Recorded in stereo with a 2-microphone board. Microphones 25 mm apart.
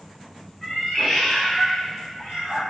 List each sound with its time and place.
0.6 s a cat meowing: 15° left (ahead or behind), 0.9 m; by 2.6 s 35° left (ahead or behind), 2.0 m